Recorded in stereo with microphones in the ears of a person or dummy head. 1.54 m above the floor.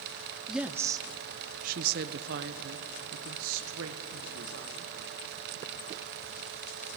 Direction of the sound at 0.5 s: 5° right (ahead or behind).